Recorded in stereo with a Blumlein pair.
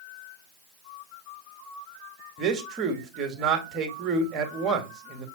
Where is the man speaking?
25° right, 2 m.